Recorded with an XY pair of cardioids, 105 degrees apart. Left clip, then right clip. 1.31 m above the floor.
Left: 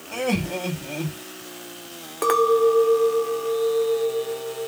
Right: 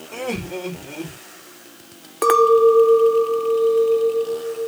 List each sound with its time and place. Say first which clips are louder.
0.1 s laughter: left 2 dB; 40° left, 2.0 m
2.2 s a clink: right 5 dB; 30° right, 0.6 m